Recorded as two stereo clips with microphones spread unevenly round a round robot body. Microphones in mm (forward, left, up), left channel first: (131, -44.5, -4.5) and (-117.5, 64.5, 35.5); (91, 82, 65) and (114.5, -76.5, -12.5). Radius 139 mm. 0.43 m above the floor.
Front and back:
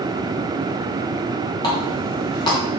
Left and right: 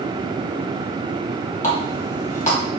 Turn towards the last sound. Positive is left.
turn(degrees=50)